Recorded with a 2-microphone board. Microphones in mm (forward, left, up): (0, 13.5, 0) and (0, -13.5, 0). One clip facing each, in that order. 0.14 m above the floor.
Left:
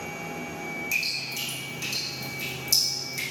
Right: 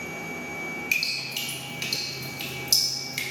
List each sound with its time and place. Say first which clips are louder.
0.9 s dripping: right 2 dB; 45° right (ahead or behind), 1.0 m